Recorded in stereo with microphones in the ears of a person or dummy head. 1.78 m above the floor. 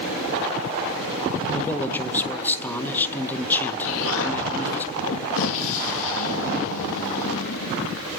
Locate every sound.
1.5 s a man speaking: 10° left (ahead or behind), 1.8 m
3.8 s an explosion: 80° left, 2.5 m